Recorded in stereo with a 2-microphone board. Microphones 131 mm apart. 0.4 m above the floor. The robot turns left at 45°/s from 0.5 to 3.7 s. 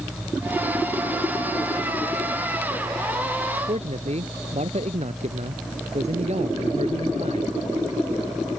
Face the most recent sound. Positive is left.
turn(degrees=-55)  # may be behind; listen again after turning